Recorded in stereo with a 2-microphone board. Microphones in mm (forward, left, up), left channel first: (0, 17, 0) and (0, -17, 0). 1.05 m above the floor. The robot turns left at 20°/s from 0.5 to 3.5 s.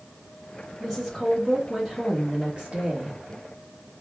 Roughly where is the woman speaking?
Ahead.